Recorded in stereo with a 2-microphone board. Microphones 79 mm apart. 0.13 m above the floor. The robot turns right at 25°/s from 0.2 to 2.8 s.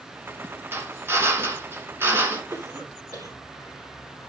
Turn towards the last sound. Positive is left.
turn(degrees=-55)  # may be behind; listen again after turning